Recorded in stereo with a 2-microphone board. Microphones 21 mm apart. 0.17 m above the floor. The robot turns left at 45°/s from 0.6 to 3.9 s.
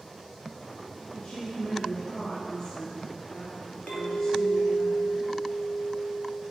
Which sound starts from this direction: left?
A clink, at 3.9 s.